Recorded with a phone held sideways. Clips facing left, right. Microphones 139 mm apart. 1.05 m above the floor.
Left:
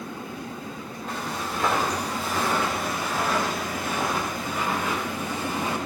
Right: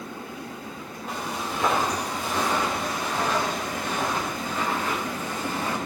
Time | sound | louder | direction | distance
1.1 | footsteps | even | 5° right (ahead or behind) | 8 m